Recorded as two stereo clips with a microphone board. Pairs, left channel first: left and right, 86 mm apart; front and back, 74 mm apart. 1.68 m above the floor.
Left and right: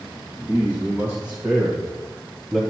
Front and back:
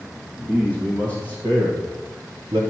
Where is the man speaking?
150° right, 1.8 m; by 2.6 s straight behind, 0.9 m.